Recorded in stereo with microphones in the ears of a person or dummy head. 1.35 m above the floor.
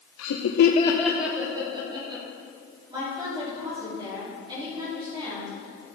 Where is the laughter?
80° left, 0.9 m; by 2.2 s 25° right (ahead or behind), 2 m.